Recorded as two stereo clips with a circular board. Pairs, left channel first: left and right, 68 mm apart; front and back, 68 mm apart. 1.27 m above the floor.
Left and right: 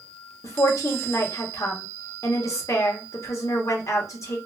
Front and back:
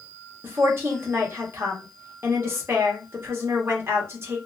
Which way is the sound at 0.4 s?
130° left.